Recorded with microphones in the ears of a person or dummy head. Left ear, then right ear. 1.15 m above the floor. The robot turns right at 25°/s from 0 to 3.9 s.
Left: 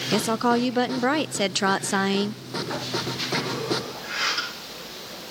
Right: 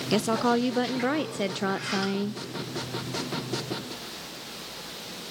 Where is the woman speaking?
5° left, 0.5 m; by 2.4 s 65° left, 0.5 m.